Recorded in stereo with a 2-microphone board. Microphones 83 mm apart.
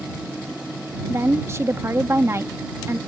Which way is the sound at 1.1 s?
35° right (ahead or behind).